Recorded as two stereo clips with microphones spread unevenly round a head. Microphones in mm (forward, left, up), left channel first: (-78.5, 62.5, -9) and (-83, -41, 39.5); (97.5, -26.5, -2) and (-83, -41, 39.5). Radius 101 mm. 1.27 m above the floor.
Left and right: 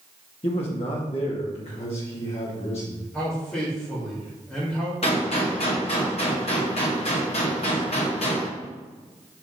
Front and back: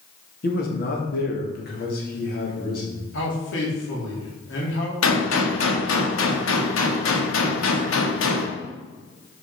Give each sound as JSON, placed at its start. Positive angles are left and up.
{"t": 0.4, "sound": "a man speaking", "azimuth_deg": 45, "distance_m": 1.8}
{"t": 3.1, "sound": "a man speaking", "azimuth_deg": 5, "distance_m": 3.5}
{"t": 5.0, "sound": "a gunshot", "azimuth_deg": 30, "distance_m": 1.7}